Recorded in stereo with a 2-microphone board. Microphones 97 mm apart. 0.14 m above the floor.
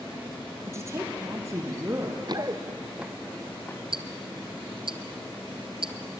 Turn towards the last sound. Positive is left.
turn(degrees=-65)  # may be behind; listen again after turning